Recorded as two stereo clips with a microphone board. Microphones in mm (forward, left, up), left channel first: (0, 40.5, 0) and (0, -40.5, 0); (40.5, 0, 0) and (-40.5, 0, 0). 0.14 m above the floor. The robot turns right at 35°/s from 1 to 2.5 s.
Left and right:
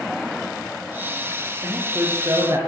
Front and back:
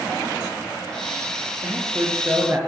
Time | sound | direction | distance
1.6 | a man speaking | 155° right | 2.5 m